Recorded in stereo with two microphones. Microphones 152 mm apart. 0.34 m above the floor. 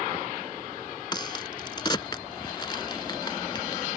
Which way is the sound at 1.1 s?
30° left (ahead or behind).